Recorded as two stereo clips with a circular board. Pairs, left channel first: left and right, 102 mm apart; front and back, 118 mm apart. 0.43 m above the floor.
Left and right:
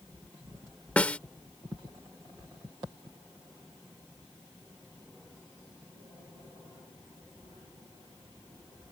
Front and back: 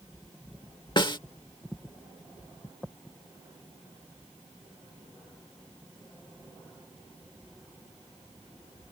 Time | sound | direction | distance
1.0 | a snare drum | 20° left | ?